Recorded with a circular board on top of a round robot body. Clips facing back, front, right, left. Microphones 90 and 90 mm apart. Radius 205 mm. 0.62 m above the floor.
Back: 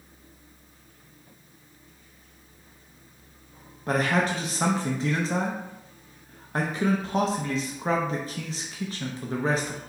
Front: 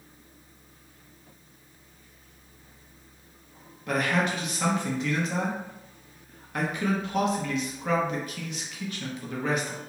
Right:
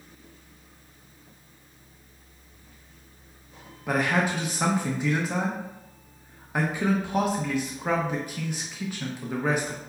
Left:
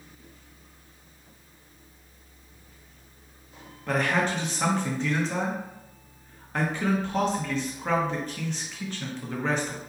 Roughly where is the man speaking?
Behind.